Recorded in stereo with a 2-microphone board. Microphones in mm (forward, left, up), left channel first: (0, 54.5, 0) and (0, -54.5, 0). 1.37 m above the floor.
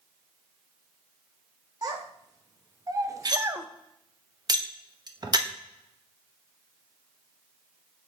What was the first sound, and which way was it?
A child speaking, 35° right (ahead or behind).